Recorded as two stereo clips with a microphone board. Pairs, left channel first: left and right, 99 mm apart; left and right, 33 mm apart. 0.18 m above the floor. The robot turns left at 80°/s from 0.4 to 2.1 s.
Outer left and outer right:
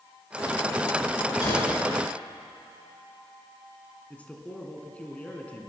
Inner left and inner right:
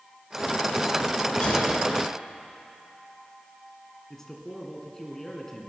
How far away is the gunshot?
About 7 m.